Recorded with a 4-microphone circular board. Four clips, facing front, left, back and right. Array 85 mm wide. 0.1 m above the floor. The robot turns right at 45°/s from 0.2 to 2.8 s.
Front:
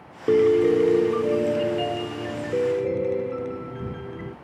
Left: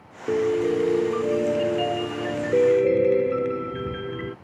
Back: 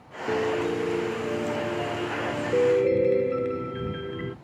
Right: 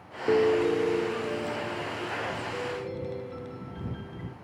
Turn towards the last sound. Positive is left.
turn(degrees=105)